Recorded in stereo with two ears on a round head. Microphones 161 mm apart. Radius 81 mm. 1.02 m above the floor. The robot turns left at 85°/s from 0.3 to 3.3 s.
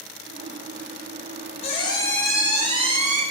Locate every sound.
1.6 s a squeak: 55° left, 0.6 m; by 3.2 s 80° right, 0.6 m